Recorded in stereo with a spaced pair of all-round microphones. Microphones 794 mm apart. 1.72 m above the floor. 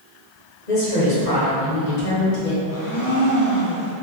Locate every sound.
0.7 s a woman speaking: 65° left (ahead or behind), 1.7 m
2.7 s a blender: 25° left (ahead or behind), 0.7 m